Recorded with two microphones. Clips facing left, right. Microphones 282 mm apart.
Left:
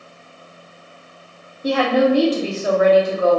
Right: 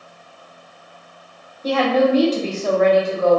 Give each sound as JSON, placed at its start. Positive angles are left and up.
{"t": 1.6, "sound": "a woman speaking", "side_deg": 10, "distance_m": 0.7}